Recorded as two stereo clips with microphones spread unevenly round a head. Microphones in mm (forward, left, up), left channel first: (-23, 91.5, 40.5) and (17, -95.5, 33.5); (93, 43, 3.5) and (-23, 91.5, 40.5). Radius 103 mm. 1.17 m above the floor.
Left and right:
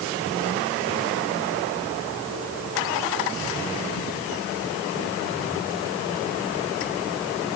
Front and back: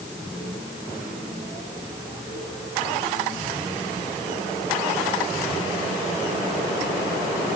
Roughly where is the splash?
No splash in this recording.